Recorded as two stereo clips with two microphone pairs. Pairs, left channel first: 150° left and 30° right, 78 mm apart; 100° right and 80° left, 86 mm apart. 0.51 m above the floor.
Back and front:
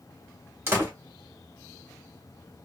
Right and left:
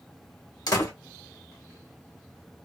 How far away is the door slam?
About 1.3 m.